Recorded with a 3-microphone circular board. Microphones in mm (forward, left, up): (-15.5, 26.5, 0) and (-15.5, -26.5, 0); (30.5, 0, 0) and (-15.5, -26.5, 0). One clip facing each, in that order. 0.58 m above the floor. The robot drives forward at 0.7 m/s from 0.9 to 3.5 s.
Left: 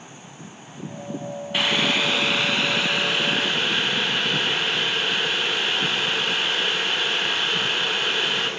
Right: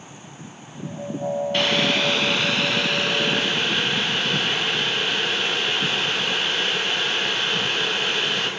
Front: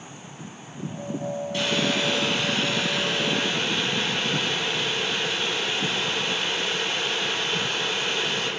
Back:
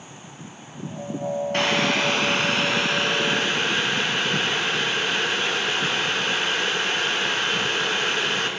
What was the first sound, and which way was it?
Boiling, 170° left.